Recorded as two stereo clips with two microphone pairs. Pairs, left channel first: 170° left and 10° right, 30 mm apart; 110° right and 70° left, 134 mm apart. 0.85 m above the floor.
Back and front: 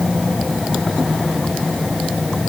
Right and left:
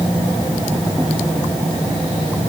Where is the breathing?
No breathing in this recording.